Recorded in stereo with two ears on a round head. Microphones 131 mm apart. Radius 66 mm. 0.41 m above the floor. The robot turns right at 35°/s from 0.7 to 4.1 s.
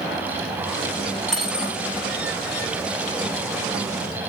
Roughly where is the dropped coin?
Centre.